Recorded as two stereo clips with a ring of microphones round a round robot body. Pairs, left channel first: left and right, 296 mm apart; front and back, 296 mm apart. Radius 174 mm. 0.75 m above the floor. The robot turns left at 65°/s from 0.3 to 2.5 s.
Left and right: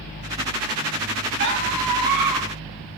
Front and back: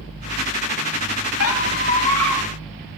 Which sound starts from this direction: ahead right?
A squeak, at 1.4 s.